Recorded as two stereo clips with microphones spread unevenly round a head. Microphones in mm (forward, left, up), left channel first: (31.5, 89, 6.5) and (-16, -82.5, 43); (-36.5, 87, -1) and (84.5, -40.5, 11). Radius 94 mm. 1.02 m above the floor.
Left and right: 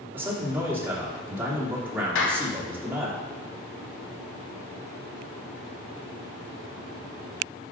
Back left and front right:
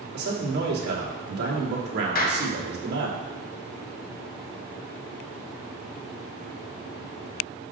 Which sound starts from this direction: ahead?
A man speaking, at 0.1 s.